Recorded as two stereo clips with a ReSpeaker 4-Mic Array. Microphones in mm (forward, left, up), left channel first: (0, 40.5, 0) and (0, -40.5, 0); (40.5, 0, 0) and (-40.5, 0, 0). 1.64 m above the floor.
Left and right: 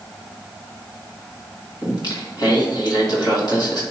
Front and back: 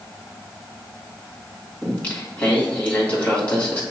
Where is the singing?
70° left, 2.5 m.